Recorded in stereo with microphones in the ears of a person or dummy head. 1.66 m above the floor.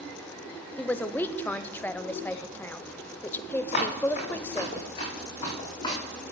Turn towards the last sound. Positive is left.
turn(degrees=25)  # may be behind; listen again after turning